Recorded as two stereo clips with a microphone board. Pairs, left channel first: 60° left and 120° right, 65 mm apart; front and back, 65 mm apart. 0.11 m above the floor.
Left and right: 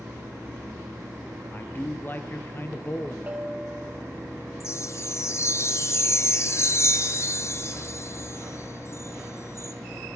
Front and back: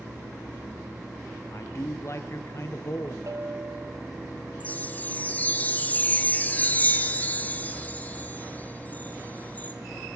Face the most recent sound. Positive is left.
turn(degrees=55)